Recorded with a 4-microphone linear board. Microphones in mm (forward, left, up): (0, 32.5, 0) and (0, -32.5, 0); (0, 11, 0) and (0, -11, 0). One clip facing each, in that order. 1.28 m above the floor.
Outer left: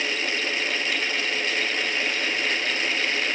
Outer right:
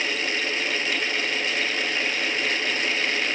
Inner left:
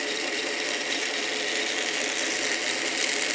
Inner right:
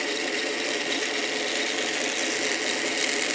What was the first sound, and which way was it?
Only background noise.